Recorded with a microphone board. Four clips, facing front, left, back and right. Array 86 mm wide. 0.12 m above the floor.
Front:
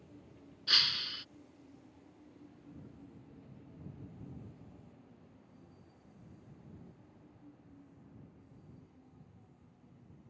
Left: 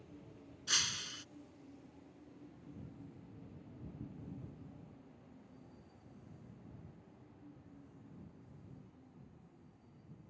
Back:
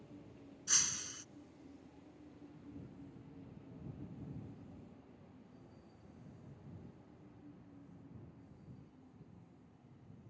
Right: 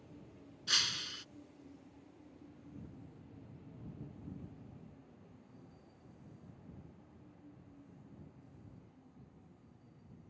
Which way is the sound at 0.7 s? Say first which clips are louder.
Right 1 dB, front 8 dB; 10° right.